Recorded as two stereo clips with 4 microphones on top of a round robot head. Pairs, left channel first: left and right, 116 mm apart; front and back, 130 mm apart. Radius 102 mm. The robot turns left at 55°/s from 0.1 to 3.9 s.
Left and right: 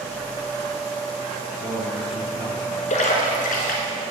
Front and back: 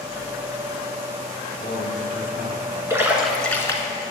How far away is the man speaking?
About 3.5 m.